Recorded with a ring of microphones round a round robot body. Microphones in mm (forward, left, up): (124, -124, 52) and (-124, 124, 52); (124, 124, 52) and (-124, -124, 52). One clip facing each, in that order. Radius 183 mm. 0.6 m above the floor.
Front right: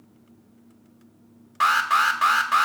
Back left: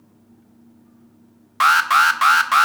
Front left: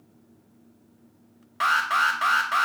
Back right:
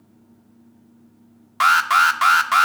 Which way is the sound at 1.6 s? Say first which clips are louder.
Back left 5 dB, back right 6 dB; 175° right.